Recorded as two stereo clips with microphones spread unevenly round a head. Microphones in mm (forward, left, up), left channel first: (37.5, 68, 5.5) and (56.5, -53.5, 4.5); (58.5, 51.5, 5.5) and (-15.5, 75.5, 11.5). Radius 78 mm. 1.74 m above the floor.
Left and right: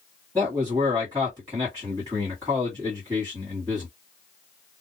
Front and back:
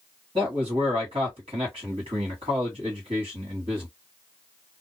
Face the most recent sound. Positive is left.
turn(degrees=-160)